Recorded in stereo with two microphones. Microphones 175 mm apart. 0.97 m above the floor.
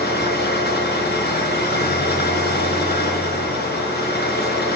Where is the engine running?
65° left (ahead or behind), 6 m.